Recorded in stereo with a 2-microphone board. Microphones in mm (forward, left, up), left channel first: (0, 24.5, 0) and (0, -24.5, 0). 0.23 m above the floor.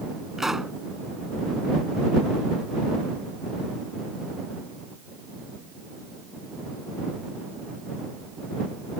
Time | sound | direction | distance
0.4 | a pop | 10° right (ahead or behind) | ?